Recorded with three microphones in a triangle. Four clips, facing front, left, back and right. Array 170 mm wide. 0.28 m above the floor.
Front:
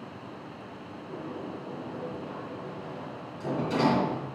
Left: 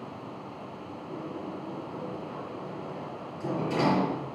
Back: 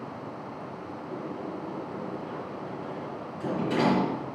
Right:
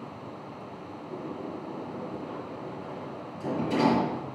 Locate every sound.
1.1 s a sliding door: 175° left, 4 m